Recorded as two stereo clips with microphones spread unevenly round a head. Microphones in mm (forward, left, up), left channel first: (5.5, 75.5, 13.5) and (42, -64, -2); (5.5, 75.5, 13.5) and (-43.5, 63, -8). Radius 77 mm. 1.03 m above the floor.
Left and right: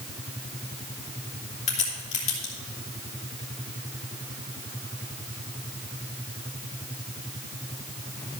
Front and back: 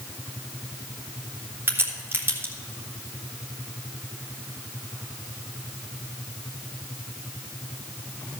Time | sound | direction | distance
1.7 | a crack | 155° left | 2.5 m